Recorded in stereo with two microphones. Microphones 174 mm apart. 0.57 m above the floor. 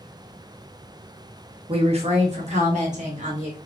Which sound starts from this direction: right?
A woman speaking, at 1.7 s.